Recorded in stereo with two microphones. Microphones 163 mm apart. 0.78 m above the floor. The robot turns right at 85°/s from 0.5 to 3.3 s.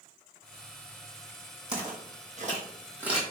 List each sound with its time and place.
1.7 s footsteps: 5° right (ahead or behind), 1.2 m; by 3.2 s centre (ahead or behind), 1.3 m